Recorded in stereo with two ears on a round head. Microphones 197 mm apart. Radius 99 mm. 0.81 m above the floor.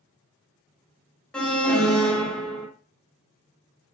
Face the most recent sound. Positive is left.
turn(degrees=5)  # may be behind; listen again after turning